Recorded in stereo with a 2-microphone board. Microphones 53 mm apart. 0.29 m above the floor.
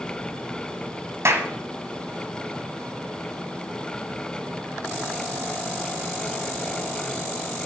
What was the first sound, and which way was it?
A clap, 55° right (ahead or behind).